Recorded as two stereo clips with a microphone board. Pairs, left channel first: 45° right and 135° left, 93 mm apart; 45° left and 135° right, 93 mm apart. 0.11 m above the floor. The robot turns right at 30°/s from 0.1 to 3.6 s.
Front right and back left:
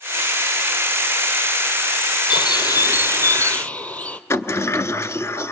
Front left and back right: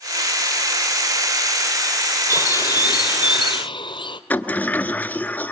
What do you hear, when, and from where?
2.3 s a bird: 10° right, 1.4 m; by 4.2 s 25° left, 1.4 m
4.3 s a sliding door: 15° right, 0.7 m